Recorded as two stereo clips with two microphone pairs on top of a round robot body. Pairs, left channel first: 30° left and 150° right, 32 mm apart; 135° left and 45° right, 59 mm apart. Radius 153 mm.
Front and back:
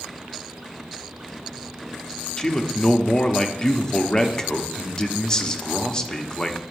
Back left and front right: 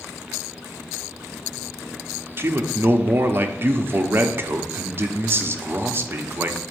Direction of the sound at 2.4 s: 30° right.